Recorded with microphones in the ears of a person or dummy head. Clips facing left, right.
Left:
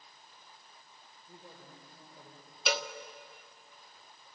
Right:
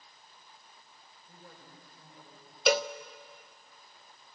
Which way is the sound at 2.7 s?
45° right (ahead or behind).